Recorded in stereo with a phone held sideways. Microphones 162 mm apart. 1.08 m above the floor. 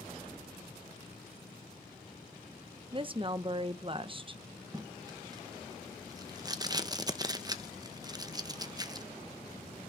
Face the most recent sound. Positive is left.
turn(degrees=-25)  # may be behind; listen again after turning